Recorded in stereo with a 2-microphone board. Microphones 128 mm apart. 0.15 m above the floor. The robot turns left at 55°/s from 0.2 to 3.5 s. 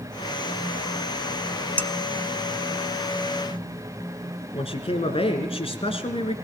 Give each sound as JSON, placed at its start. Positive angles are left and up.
{"t": 1.8, "sound": "dishes clattering", "side_deg": 15, "distance_m": 0.7}
{"t": 4.5, "sound": "a man speaking", "side_deg": 45, "distance_m": 2.5}